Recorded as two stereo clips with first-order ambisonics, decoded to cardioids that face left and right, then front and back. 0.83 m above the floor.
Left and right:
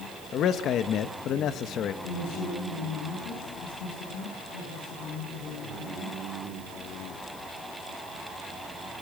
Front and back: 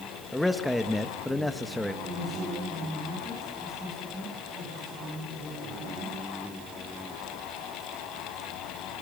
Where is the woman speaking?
100° left, 8.5 m.